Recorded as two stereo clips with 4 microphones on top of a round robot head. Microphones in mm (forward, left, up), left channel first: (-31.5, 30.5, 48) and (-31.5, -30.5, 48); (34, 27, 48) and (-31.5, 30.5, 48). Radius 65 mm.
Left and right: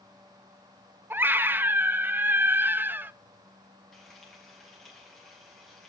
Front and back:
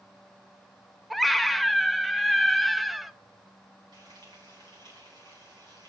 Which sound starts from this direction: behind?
Frying, at 3.9 s.